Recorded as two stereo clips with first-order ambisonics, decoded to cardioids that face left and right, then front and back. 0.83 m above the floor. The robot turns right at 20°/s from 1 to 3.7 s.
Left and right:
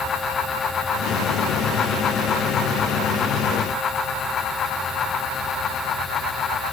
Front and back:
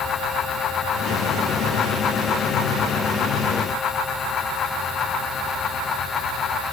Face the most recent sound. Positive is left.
No sound to turn to.